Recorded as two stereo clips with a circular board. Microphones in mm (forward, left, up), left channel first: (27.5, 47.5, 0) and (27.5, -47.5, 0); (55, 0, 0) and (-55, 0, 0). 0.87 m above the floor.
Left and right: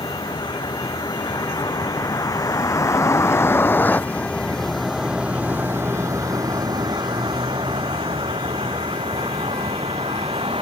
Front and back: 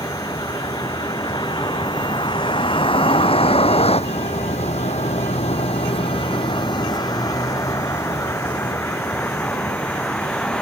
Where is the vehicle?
55° left; by 10.6 s 80° right.